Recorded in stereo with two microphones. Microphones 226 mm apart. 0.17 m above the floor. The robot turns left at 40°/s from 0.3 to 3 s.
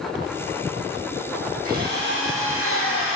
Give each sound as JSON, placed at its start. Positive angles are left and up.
{"t": 1.6, "sound": "a drill", "azimuth_deg": -40, "distance_m": 4.5}